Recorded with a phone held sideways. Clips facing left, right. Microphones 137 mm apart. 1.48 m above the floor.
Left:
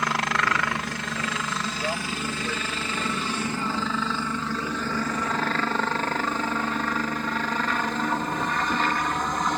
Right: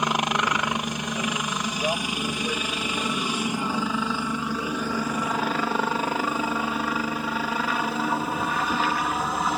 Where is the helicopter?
20° right (ahead or behind); by 9.6 s 5° right (ahead or behind).